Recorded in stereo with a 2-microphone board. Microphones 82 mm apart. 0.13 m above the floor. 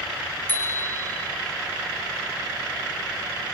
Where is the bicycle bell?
25° left (ahead or behind), 4 m.